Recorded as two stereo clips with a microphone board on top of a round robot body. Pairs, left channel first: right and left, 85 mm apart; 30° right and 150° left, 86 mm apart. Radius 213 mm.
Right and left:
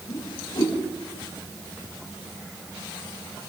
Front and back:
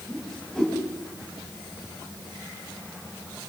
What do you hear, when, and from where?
0.1 s a whoosh: 115° right, 6 m